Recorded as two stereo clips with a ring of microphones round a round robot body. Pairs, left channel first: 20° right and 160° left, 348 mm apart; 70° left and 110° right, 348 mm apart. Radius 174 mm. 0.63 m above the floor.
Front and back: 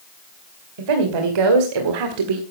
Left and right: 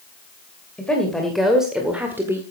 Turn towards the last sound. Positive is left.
turn(degrees=165)